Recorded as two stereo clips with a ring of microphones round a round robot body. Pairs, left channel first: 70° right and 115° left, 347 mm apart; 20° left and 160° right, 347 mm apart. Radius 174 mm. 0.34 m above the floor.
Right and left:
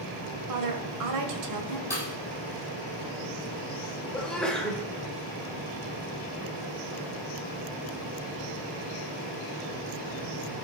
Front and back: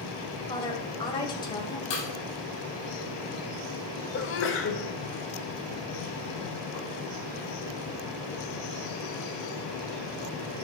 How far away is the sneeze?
About 1.1 m.